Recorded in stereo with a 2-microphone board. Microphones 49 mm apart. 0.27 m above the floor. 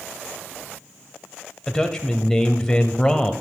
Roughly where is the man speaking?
Centre.